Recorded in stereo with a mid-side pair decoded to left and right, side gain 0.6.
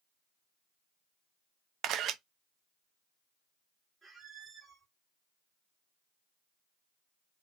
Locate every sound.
1.8 s a camera shutter: 55° right, 0.6 m
4.0 s a squeak: 20° right, 1.9 m